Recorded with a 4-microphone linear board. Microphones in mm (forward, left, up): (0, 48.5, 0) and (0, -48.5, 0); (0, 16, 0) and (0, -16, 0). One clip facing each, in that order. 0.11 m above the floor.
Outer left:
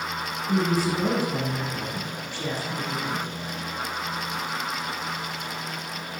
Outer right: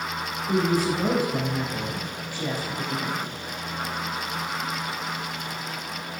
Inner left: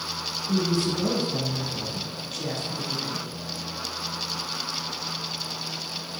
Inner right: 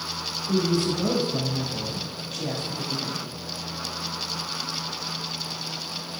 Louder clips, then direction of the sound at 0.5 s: Outer right 1 dB, inner right 1 dB; 10° right (ahead or behind).